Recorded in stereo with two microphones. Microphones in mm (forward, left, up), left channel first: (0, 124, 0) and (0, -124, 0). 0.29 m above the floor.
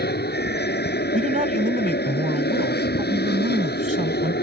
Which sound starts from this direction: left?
An aircraft, at 0.0 s.